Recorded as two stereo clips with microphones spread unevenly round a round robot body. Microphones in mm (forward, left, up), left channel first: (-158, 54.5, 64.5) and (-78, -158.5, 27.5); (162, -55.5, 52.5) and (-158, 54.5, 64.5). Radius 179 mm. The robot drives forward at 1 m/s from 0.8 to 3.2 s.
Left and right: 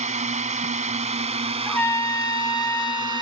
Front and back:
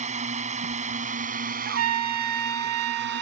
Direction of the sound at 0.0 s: 130° right.